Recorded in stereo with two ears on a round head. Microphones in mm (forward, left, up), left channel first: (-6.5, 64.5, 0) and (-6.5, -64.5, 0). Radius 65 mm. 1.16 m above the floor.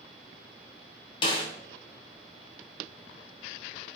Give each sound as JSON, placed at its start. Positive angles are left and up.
{"t": 1.2, "sound": "a snare drum", "side_deg": 35, "distance_m": 0.8}